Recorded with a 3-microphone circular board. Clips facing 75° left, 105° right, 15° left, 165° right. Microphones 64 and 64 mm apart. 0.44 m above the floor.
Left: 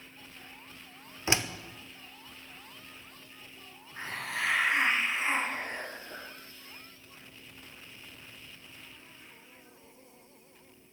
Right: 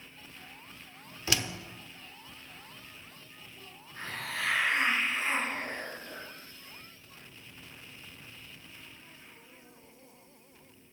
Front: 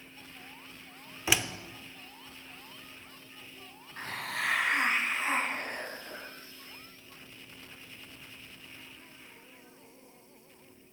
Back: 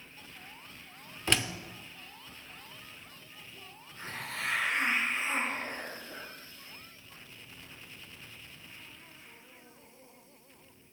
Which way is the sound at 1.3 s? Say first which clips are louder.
Left 2 dB, even; 90° left.